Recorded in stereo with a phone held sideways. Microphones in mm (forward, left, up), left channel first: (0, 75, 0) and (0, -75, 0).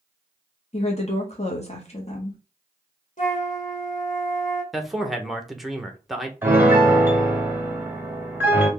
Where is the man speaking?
Centre (ahead or behind), 0.7 m.